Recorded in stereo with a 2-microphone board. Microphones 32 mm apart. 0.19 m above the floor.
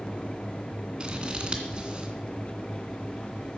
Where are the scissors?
30° right (ahead or behind), 2.5 m.